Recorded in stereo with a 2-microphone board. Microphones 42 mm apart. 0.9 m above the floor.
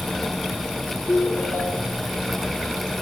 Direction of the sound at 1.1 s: 55° left (ahead or behind).